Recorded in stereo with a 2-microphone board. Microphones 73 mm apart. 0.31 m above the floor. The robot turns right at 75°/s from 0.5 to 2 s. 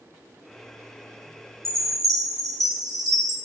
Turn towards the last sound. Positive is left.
turn(degrees=-55)  # may be behind; listen again after turning